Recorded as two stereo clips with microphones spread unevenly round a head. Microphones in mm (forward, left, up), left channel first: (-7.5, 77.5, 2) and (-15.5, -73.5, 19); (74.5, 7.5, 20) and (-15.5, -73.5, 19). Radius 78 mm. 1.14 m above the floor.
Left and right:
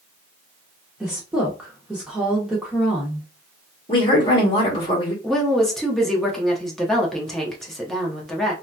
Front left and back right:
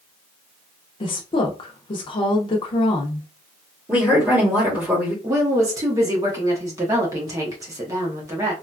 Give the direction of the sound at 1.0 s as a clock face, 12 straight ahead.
12 o'clock.